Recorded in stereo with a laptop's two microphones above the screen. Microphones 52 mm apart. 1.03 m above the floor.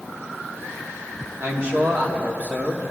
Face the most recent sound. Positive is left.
turn(degrees=-30)  # may be behind; listen again after turning